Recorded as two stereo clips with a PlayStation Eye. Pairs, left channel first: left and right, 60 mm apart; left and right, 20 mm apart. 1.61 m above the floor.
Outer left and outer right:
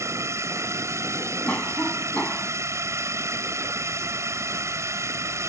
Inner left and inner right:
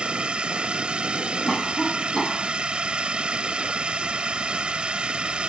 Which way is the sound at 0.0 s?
55° right (ahead or behind).